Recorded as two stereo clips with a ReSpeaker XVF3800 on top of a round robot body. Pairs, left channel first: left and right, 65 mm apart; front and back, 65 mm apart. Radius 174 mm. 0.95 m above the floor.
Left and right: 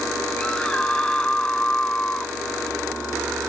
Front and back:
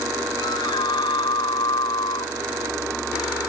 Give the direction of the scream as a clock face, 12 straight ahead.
12 o'clock.